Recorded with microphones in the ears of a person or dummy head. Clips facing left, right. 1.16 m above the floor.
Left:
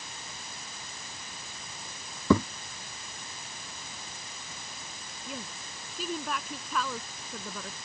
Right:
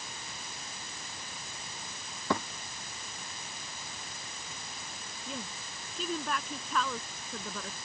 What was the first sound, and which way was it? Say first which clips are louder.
A thud: left 9 dB; 85° left.